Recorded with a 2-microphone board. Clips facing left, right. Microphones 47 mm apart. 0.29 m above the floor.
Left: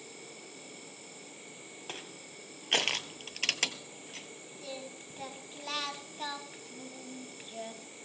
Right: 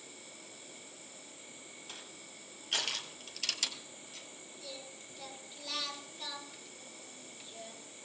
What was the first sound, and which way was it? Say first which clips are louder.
An insect: left 4 dB; 80° left.